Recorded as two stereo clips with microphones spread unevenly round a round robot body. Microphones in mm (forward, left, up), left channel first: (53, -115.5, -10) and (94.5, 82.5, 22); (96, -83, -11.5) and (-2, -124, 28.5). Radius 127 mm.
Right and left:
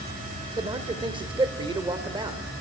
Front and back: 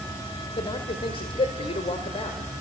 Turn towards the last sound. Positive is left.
turn(degrees=10)